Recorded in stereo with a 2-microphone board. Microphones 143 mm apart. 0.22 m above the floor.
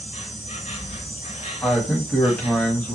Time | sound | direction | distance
0.0 | an insect | 55° left (ahead or behind) | 1.3 m
1.6 | a man speaking | 10° left (ahead or behind) | 1.0 m